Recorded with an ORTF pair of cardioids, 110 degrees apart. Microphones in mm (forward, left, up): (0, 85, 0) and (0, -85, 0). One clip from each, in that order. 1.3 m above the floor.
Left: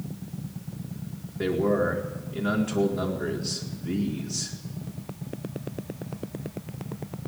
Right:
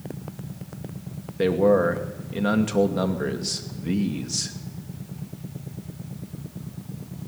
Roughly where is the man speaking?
Ahead right.